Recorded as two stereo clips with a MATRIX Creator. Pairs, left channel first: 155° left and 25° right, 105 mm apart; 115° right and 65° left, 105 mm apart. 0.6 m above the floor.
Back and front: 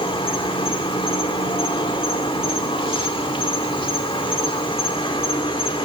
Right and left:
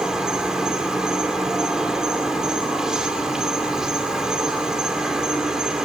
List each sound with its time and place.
0.0 s an insect: 150° left, 2 m